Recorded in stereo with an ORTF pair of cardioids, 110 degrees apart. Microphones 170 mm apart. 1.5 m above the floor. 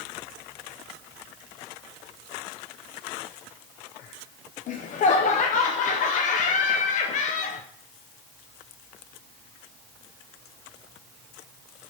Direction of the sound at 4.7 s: 50° left.